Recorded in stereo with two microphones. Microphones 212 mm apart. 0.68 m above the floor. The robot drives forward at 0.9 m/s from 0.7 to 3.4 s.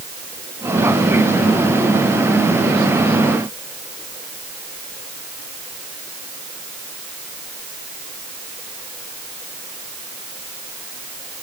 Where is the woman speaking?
I don't hear a woman speaking.